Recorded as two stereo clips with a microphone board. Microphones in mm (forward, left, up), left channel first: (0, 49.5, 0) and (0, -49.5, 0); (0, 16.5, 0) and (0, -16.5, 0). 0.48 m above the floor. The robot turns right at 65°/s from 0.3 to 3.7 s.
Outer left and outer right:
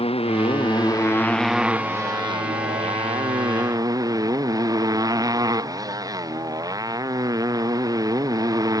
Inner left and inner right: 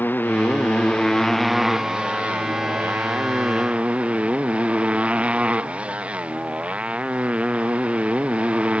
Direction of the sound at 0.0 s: 100° left.